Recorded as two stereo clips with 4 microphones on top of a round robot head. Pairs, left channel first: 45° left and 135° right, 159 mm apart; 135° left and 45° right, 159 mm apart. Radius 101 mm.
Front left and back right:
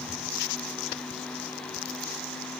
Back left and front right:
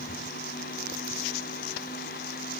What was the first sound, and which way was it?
Only background noise.